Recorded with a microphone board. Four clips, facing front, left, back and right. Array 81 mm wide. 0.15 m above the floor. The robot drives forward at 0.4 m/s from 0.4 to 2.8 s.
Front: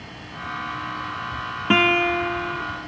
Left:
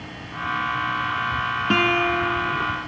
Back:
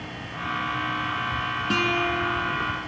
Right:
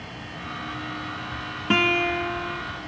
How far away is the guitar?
About 1.0 m.